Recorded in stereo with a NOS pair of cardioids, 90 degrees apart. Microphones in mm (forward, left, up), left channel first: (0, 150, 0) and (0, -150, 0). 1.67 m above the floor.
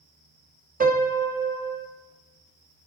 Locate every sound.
0.8 s a piano: 25° right, 1.7 m